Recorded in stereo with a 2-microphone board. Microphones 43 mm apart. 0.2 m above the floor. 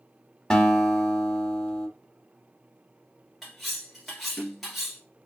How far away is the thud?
I don't hear a thud.